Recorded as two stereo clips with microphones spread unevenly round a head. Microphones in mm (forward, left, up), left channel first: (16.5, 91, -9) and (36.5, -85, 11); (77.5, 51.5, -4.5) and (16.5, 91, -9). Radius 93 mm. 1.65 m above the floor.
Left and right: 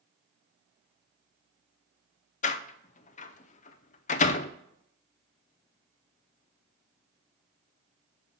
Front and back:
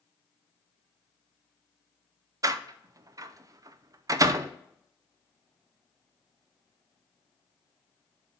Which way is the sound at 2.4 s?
135° left.